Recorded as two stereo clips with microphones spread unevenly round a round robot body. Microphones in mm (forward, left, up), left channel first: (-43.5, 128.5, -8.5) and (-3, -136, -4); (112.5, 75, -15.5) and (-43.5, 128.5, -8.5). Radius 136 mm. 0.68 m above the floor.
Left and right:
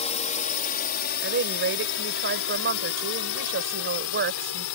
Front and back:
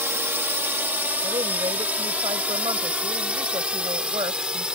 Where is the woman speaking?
125° right.